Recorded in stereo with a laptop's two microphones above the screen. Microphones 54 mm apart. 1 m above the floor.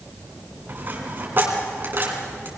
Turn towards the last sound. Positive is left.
turn(degrees=-40)  # may be behind; listen again after turning